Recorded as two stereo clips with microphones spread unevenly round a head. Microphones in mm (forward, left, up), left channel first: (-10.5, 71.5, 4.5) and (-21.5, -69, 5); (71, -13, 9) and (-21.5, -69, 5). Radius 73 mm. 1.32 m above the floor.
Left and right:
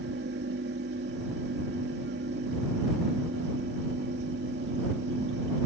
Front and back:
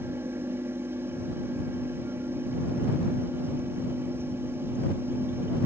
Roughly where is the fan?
Right.